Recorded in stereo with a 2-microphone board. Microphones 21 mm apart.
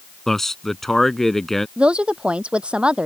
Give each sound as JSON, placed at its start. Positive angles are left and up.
{"t": 0.3, "sound": "a man speaking", "side_deg": 20}
{"t": 1.8, "sound": "a woman speaking", "side_deg": -60}